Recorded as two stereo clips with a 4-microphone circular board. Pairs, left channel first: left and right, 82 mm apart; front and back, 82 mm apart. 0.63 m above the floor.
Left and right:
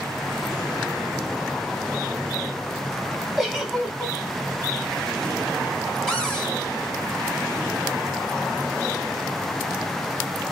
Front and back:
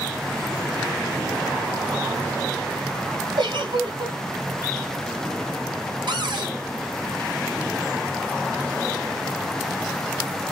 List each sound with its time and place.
3.4 s a giggle: straight behind, 1.6 m
6.1 s a cupboard door: 175° left, 1.6 m